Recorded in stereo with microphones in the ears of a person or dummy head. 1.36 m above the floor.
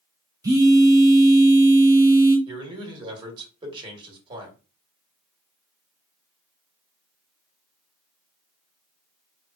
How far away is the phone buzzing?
About 0.5 m.